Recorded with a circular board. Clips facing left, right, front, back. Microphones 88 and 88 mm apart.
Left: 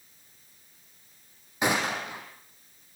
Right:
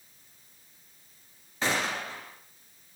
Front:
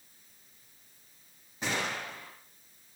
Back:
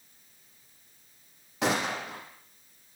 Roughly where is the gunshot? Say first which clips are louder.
Left 3 dB, back 5 dB; behind.